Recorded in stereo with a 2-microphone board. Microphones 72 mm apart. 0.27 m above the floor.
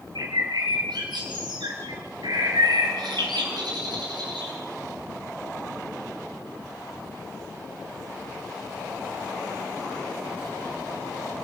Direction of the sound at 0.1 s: 75° right (ahead or behind).